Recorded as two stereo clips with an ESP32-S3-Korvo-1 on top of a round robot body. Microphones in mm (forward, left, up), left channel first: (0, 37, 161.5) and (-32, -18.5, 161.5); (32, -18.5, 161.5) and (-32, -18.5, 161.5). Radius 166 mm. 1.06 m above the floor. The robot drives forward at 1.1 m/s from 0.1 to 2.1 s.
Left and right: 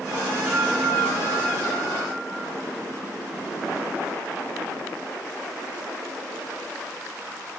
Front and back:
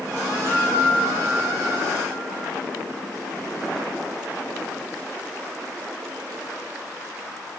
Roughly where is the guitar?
Ahead right.